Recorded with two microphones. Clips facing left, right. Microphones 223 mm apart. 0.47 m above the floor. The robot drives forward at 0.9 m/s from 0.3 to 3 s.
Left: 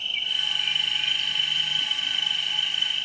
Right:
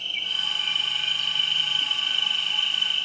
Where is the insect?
45° right (ahead or behind), 3 m; by 3.0 s 60° right (ahead or behind), 2.5 m.